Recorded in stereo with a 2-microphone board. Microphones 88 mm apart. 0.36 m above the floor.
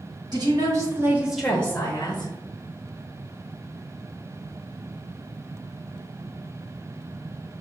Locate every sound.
0.3 s a woman speaking: 55° right (ahead or behind), 1.6 m; by 2.3 s 50° left (ahead or behind), 1.4 m